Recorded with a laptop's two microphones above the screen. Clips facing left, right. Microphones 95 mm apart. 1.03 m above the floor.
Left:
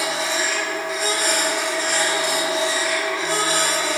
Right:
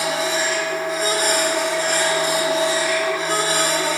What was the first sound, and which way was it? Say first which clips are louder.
A machine running: right 2 dB; 45° right (ahead or behind).